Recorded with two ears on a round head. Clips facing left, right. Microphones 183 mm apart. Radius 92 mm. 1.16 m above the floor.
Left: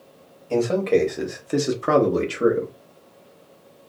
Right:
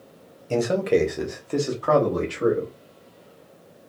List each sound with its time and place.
0.5 s a man speaking: 20° right (ahead or behind), 0.8 m; by 2.7 s 45° left (ahead or behind), 0.9 m